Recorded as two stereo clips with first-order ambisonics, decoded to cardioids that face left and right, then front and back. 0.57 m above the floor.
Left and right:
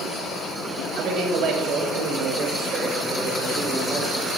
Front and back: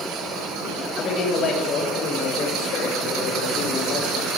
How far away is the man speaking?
About 2.5 m.